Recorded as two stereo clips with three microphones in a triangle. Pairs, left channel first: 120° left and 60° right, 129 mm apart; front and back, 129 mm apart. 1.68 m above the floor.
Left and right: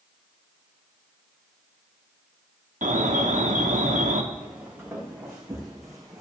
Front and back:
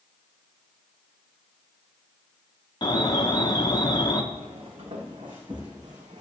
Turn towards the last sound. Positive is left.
turn(degrees=-125)